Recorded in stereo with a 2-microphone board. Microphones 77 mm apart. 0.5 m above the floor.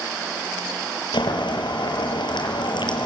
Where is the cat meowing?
I don't hear a cat meowing.